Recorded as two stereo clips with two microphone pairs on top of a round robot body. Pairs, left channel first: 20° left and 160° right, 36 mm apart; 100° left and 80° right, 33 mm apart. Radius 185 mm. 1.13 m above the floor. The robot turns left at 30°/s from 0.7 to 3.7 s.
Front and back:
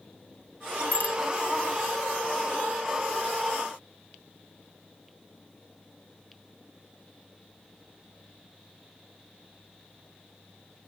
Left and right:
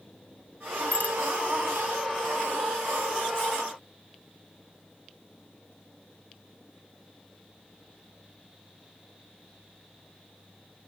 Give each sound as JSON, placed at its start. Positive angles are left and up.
{"t": 0.9, "sound": "a bicycle bell", "azimuth_deg": 60}